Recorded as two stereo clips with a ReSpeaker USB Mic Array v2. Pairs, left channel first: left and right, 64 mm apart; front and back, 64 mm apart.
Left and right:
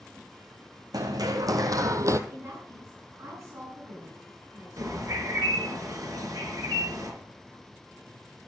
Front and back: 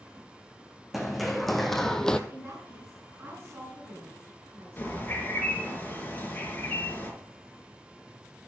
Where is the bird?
65° right, 4.5 m.